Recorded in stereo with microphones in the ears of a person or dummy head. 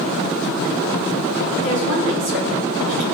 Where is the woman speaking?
60° right (ahead or behind), 5.5 m.